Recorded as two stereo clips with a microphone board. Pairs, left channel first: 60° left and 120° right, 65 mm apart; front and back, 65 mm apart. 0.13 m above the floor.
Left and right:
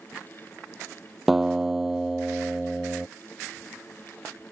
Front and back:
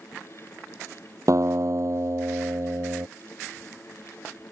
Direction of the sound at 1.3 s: 155° left.